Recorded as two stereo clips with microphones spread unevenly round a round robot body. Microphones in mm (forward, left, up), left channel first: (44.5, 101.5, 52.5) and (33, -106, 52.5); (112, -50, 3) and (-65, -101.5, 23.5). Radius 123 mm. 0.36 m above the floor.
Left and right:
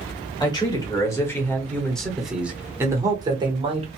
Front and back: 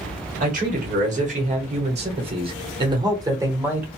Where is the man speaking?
150° left, 1.7 m; by 3.9 s 80° right, 1.2 m.